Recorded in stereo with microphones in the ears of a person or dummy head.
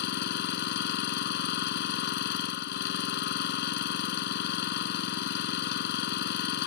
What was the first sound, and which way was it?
An engine running, 65° left (ahead or behind).